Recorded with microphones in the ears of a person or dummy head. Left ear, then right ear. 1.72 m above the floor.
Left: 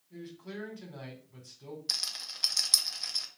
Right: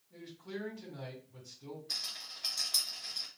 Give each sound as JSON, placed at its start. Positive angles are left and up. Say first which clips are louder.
{"t": 0.1, "sound": "a man speaking", "louder": "left 1 dB", "side_deg": 70, "distance_m": 1.3}
{"t": 1.9, "sound": "a rattle", "louder": "left 5 dB", "side_deg": 85, "distance_m": 0.6}